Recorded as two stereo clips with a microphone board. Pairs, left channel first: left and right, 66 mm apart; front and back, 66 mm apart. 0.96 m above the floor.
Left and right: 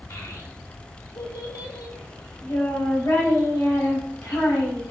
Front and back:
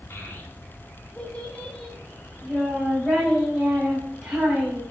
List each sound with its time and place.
0.1 s a child speaking: 50° left, 1.6 m; by 4.8 s 100° left, 4.5 m